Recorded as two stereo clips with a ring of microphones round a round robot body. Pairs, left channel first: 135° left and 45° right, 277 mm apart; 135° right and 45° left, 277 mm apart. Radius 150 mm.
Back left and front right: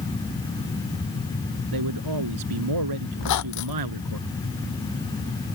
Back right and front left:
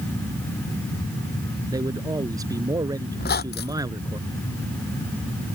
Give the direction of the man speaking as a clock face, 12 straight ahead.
1 o'clock.